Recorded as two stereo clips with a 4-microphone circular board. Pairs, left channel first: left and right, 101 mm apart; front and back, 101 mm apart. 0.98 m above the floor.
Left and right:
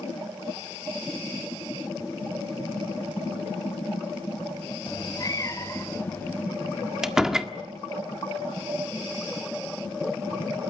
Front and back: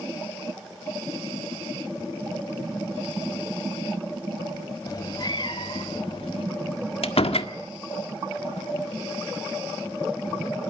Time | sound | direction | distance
4.9 | a cat meowing | 50° left | 1.7 m
7.0 | a door slam | 5° right | 1.6 m